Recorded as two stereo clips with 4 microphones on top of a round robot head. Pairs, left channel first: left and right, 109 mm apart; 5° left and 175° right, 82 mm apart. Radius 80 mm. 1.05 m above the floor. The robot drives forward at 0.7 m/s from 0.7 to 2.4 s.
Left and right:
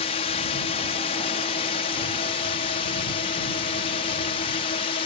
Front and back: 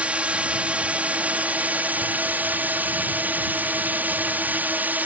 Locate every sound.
0.0 s a drone: 110° left; by 5.1 s 115° left